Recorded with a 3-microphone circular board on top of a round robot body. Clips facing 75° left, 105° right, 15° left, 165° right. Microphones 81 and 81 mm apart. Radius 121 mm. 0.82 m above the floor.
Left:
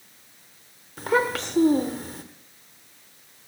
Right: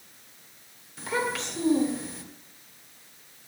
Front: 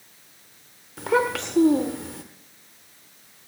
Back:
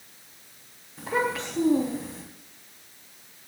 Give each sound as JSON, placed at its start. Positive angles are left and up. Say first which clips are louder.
{"t": 1.0, "sound": "a child speaking", "louder": "left 6 dB, front 5 dB", "azimuth_deg": 30, "distance_m": 1.5}